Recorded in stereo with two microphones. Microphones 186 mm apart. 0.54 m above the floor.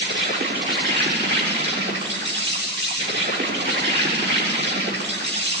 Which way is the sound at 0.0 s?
70° right (ahead or behind).